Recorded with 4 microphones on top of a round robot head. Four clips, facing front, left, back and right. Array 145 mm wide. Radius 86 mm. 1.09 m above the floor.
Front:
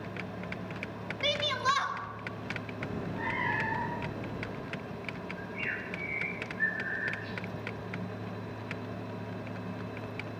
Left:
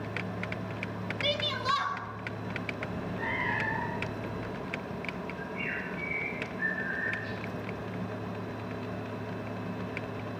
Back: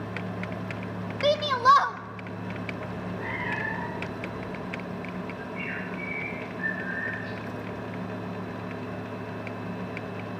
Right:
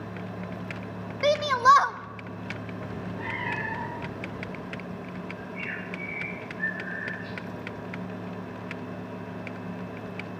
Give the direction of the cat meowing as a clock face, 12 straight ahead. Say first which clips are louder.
Even, back 2 dB; 1 o'clock.